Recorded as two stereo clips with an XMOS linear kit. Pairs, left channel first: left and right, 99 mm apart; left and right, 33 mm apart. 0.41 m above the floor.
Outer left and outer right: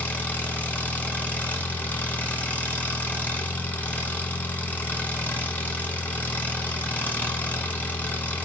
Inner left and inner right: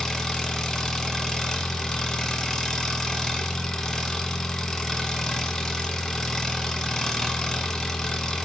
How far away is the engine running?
About 1.3 m.